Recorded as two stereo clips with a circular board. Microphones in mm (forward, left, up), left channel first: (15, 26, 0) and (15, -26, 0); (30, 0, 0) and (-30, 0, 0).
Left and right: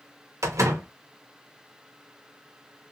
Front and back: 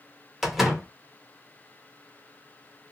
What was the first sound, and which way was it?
A door slam, 90° right.